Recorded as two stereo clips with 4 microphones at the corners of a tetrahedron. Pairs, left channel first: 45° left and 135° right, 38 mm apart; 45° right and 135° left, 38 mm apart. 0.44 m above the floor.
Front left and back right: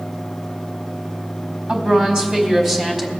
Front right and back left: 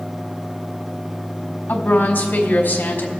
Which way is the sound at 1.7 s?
70° right.